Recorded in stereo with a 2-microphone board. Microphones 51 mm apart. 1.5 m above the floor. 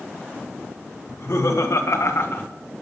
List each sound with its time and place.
1.1 s laughter: 75° left (ahead or behind), 2.5 m; by 2.5 s 40° left (ahead or behind), 1.1 m